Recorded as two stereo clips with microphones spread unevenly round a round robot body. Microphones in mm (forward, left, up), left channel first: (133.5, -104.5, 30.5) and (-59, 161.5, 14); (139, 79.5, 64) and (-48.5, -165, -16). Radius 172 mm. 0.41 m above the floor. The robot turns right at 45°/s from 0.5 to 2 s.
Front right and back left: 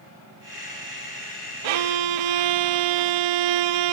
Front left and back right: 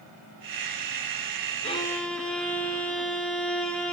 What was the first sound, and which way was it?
A violin, 120° left.